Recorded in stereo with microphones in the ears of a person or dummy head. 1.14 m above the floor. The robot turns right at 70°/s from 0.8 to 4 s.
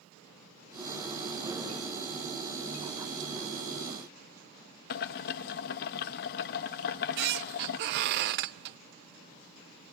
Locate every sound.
4.9 s boiling: 55° left (ahead or behind), 0.6 m
6.8 s a squeak: 60° right (ahead or behind), 0.5 m